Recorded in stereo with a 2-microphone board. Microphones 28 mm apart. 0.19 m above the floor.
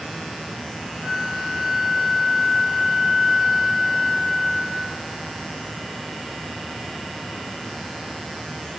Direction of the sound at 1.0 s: 35° right (ahead or behind).